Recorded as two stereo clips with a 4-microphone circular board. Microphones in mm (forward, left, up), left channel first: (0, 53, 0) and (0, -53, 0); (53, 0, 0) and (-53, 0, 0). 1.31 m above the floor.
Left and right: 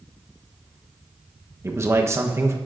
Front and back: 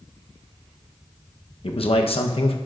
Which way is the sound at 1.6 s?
25° right.